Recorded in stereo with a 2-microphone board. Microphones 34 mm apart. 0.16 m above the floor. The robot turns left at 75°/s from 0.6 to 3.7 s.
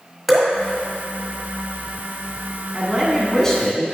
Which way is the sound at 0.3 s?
Centre (ahead or behind).